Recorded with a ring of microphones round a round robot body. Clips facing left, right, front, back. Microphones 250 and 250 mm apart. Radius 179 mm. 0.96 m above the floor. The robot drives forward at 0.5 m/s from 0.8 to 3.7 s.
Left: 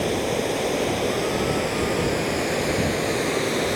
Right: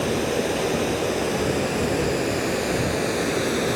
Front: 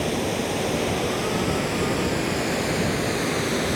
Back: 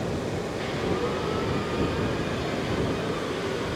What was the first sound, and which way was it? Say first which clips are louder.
Running water: right 1 dB, front 4 dB; 10° right.